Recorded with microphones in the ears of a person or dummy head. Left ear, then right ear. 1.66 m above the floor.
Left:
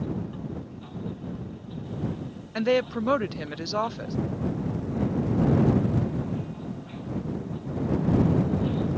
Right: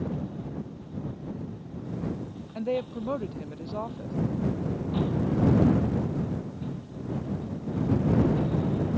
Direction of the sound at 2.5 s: 60° left (ahead or behind).